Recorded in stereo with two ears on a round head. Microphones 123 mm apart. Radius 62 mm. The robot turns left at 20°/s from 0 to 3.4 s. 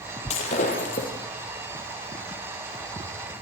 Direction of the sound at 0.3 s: 55° left (ahead or behind).